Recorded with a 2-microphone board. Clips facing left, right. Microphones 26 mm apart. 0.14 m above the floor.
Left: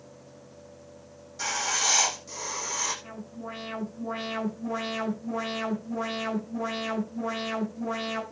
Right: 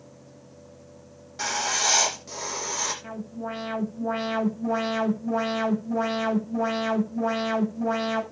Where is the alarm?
30° right (ahead or behind), 7 m.